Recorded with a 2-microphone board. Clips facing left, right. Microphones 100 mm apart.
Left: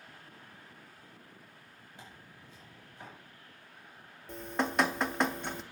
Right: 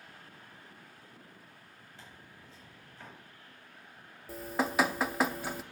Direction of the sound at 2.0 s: 15° left (ahead or behind).